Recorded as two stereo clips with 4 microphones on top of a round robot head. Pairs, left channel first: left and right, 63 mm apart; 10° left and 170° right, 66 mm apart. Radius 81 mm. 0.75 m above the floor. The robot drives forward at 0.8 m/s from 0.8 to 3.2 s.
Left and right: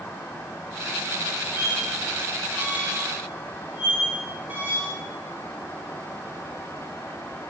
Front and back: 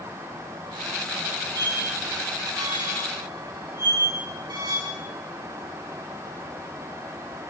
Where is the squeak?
150° right, 8.5 m; by 4.9 s 155° right, 10 m.